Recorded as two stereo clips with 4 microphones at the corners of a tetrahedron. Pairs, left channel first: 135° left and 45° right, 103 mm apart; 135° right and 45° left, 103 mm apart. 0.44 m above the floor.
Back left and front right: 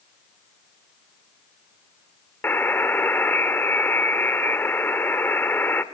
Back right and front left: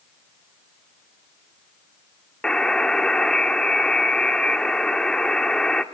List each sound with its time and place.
2.4 s a buzzer: 155° left, 1.2 m